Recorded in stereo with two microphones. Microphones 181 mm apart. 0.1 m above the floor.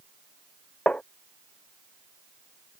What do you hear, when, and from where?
0.9 s tapping: 5° left (ahead or behind)